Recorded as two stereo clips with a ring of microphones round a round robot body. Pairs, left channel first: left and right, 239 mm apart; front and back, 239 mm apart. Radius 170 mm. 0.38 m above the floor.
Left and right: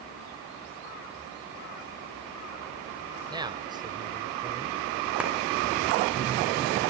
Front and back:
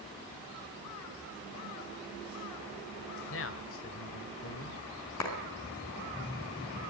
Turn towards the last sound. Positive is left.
turn(degrees=-5)